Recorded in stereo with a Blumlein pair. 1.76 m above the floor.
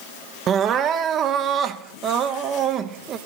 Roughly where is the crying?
Ahead right.